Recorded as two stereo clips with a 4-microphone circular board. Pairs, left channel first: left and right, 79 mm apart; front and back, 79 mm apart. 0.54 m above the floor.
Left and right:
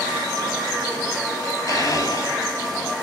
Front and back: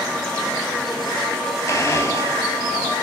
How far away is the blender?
About 3.5 m.